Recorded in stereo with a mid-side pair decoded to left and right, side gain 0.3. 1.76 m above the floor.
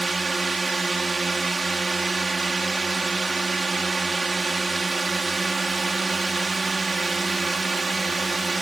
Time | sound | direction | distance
0.0 | a drone | 50° right | ?